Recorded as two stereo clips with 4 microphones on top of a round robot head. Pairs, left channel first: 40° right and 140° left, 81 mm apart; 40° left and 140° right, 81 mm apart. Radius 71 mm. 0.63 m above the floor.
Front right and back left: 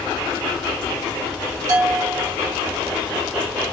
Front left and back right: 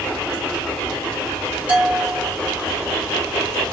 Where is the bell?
155° left, 1.5 m.